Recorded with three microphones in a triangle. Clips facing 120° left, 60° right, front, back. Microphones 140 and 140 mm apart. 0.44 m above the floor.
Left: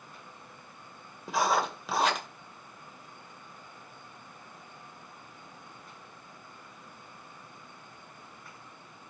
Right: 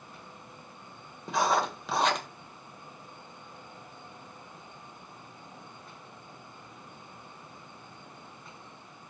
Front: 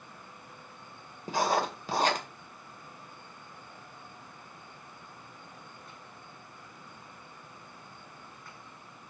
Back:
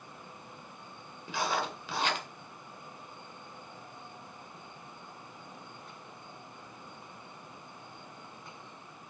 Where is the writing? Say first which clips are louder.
Right 1 dB, front 5 dB; 35° left, 1.9 m.